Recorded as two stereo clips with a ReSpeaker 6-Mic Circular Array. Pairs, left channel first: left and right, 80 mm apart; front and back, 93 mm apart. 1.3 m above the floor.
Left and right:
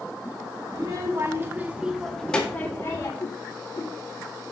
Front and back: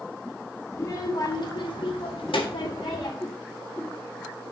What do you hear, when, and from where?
0.7 s a child speaking: 55° right, 2.5 m; by 3.1 s 35° left, 2.5 m
3.2 s a whoosh: 75° left, 1.6 m